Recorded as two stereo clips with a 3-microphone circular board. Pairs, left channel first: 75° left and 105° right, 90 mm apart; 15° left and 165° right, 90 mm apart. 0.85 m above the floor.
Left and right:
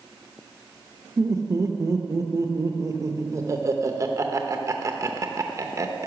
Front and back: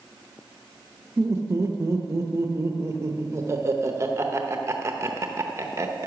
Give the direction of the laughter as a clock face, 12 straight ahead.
4 o'clock.